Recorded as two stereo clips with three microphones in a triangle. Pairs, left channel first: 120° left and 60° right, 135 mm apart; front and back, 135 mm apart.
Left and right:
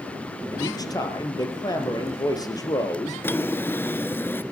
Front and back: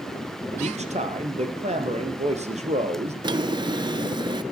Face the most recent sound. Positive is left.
turn(degrees=180)